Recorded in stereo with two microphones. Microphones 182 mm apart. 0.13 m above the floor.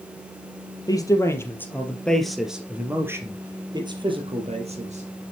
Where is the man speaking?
20° left (ahead or behind), 4.5 m; by 5.3 s 45° right (ahead or behind), 5 m.